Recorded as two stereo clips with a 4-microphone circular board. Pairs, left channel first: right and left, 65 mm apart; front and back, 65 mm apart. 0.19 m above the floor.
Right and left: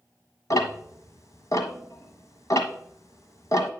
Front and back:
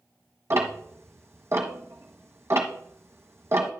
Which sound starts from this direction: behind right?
Ticking, at 0.5 s.